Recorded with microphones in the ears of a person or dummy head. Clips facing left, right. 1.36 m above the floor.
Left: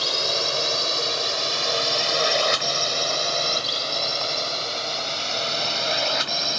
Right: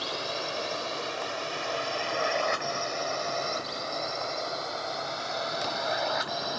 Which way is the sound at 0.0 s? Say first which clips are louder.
Left 6 dB; 65° left (ahead or behind).